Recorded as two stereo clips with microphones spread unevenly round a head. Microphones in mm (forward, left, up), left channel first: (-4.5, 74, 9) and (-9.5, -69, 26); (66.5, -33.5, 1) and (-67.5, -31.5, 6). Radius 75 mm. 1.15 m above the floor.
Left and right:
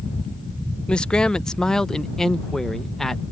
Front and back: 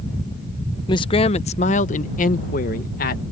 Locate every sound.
0.9 s a man speaking: 20° left; by 3.2 s straight ahead